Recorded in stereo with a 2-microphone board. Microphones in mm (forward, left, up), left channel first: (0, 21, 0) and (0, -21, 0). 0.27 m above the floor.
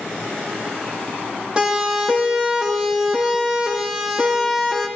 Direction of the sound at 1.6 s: 20° right (ahead or behind).